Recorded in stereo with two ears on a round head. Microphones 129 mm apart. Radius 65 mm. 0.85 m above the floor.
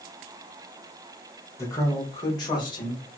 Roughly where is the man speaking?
Centre.